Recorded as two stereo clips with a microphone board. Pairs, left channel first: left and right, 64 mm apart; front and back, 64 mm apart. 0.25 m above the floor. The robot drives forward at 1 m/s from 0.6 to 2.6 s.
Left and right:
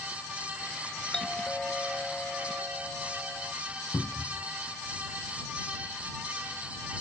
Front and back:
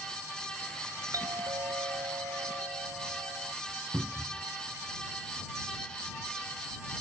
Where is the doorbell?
170° left.